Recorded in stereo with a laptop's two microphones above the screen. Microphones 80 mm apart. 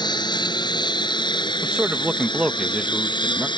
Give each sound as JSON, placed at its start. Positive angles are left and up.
{"t": 0.0, "sound": "a lawn mower", "side_deg": 70}
{"t": 1.6, "sound": "a man speaking", "side_deg": -15}